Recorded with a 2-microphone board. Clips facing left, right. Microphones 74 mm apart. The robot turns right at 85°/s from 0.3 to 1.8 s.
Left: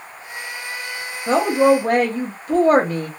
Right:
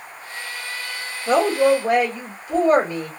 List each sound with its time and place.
1.3 s a woman speaking: 30° left, 0.9 m; by 3.1 s 75° left, 0.9 m